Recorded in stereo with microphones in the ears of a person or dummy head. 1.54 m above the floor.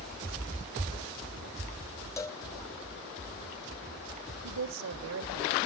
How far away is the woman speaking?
About 1.3 m.